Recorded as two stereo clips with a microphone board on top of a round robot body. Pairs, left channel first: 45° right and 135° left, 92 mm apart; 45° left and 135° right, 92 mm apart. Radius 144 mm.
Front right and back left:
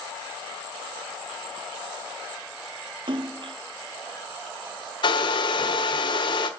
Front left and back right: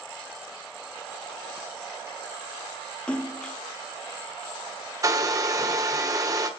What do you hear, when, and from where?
3.1 s a splash: 120° left, 1.1 m
5.0 s a hair dryer: 80° right, 1.2 m